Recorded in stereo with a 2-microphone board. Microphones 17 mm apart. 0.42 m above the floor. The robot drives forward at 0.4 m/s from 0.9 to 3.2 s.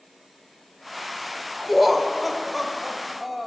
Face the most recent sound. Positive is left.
turn(degrees=-5)  # may be behind; listen again after turning